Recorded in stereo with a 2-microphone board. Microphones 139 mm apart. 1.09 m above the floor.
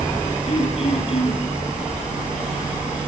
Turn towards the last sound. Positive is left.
turn(degrees=45)  # may be behind; listen again after turning